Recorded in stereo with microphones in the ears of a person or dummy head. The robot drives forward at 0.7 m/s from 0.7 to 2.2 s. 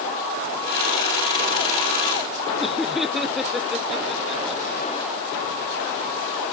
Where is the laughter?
Centre (ahead or behind).